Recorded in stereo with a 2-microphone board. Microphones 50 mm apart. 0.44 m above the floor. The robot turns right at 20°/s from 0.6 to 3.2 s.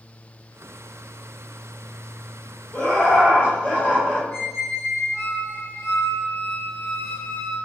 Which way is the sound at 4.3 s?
60° left (ahead or behind).